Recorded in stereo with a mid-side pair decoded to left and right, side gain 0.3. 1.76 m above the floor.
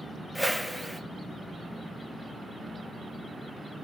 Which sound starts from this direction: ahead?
A whoosh, at 0.3 s.